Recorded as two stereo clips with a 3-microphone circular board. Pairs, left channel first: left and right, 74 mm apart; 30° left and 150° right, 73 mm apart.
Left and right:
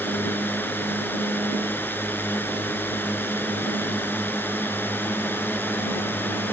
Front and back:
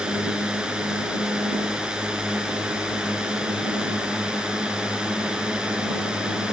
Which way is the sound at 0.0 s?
135° left.